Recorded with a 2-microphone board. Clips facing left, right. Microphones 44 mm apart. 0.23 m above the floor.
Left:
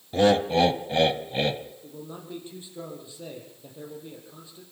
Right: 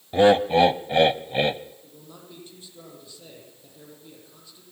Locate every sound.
0.1 s laughter: 25° right (ahead or behind), 1.1 m
1.8 s a man speaking: 20° left (ahead or behind), 8.5 m